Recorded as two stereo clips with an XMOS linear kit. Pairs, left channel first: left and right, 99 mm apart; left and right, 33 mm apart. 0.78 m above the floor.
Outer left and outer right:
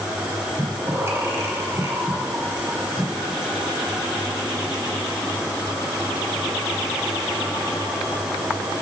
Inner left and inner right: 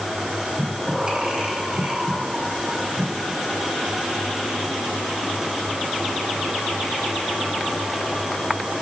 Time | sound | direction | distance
0.6 | breathing | 30° right (ahead or behind) | 2.5 m